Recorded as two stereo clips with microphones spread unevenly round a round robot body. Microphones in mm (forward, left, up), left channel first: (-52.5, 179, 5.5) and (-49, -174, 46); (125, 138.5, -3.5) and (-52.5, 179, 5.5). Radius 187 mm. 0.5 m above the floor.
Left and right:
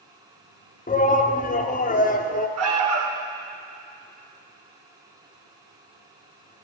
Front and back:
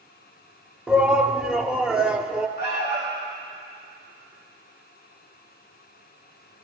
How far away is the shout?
About 1.1 m.